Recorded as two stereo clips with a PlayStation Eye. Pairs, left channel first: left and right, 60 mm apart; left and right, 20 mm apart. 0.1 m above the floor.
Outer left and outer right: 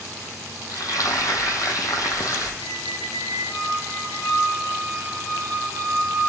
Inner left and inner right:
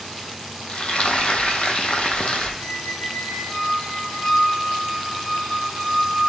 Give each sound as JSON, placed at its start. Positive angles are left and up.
{"t": 0.7, "sound": "frying", "side_deg": 75, "distance_m": 0.6}
{"t": 2.6, "sound": "a squeak", "side_deg": 70, "distance_m": 2.0}